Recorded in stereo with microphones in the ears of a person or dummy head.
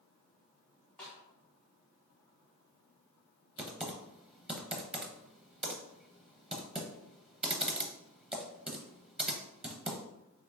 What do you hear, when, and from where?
1.0 s a snare drum: 5° left (ahead or behind), 1.7 m
3.6 s typing on a keyboard: centre (ahead or behind), 0.6 m